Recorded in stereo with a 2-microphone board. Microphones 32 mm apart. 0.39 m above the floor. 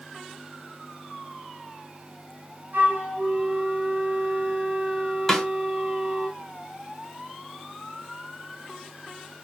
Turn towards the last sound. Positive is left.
turn(degrees=15)  # may be behind; listen again after turning